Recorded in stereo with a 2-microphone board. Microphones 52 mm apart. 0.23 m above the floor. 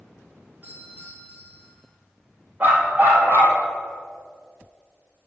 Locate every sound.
0.6 s a doorbell: 35° right (ahead or behind), 3.5 m
2.6 s a dog barking: 35° right (ahead or behind), 2 m